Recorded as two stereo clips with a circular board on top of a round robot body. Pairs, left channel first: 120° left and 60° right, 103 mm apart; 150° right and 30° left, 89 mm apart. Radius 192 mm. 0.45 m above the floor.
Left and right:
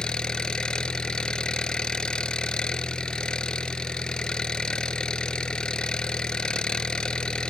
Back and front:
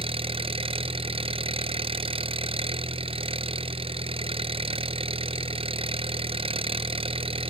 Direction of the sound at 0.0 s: 35° left.